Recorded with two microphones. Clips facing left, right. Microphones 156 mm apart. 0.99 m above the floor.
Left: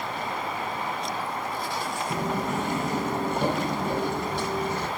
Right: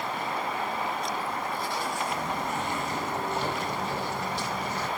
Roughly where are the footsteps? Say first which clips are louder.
Left 3 dB; left.